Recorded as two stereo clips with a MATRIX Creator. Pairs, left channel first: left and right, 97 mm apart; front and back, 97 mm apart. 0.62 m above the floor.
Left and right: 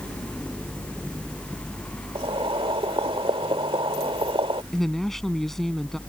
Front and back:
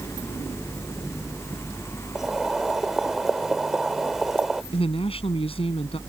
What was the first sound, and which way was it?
Boiling, 95° right.